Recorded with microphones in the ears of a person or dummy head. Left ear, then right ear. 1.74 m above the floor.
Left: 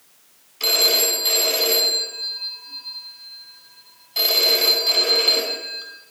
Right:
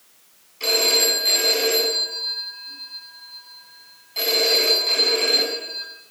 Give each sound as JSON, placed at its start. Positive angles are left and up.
{"t": 0.6, "sound": "a phone ringing", "side_deg": 20, "distance_m": 9.0}